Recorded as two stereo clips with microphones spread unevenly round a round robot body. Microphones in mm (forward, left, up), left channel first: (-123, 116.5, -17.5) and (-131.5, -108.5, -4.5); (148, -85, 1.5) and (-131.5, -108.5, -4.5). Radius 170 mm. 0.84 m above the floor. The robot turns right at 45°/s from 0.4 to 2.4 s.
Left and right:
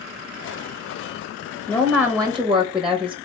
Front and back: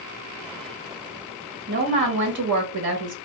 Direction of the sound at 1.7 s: 145° left.